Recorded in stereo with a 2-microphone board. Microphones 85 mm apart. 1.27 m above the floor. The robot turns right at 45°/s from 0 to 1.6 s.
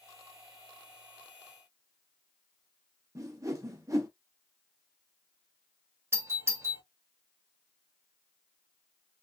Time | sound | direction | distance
3.1 | a whoosh | 40° right (ahead or behind) | 0.7 m
6.1 | a doorbell | 30° right (ahead or behind) | 0.8 m